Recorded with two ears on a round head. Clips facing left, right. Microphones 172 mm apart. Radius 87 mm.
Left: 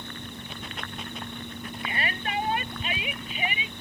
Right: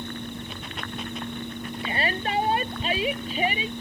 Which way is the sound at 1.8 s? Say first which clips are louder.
Right 5 dB; 30° right (ahead or behind).